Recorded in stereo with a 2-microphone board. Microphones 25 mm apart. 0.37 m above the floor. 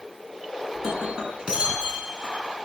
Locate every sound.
0.8 s breaking glass: 40° right (ahead or behind), 7.5 m